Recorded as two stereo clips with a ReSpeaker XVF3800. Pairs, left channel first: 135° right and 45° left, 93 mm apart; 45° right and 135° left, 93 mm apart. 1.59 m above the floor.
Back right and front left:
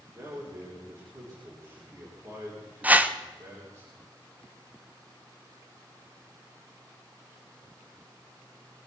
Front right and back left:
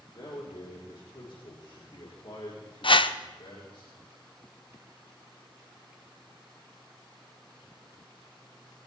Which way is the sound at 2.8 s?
25° right.